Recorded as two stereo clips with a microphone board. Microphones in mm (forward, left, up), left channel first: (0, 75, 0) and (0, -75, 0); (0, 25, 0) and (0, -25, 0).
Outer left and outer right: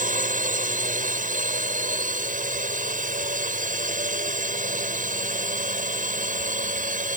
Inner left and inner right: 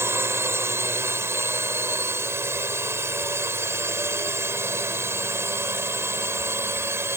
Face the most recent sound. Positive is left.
turn(degrees=-60)  # may be behind; listen again after turning